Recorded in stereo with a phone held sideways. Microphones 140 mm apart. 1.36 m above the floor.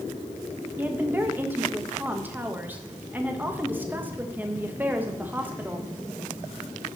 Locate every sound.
0.8 s a woman speaking: 15° right (ahead or behind), 1.4 m